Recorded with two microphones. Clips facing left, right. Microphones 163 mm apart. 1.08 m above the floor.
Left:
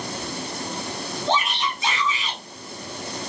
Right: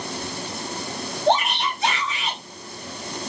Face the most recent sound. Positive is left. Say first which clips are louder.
# right 5 dB
turn(degrees=-65)  # may be behind; listen again after turning